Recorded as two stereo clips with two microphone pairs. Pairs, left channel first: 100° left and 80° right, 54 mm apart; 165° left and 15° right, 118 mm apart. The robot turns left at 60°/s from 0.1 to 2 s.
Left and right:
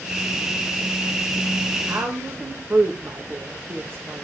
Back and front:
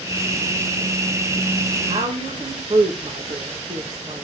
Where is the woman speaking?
25° right, 1.5 m; by 4.2 s 30° right, 1.5 m.